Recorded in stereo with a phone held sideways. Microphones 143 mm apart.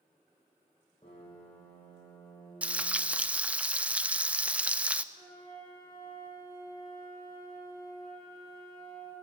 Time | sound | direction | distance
1.0 | a piano | 40° left (ahead or behind) | 10 m
2.6 | frying | 10° right (ahead or behind) | 0.6 m
5.1 | a flute | 75° left (ahead or behind) | 9.5 m